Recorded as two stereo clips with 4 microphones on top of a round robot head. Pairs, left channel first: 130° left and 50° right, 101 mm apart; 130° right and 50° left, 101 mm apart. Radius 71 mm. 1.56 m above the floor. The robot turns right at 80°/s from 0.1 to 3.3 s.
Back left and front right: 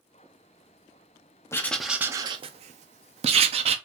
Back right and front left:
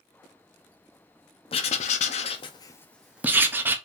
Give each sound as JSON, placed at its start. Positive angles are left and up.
{"t": 1.5, "sound": "writing", "azimuth_deg": -165, "distance_m": 0.6}